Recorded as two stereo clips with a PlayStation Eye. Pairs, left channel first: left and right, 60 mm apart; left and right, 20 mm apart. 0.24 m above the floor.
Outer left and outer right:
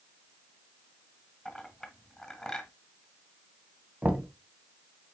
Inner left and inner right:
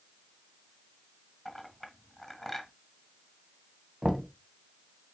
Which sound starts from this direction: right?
Knocking, at 4.0 s.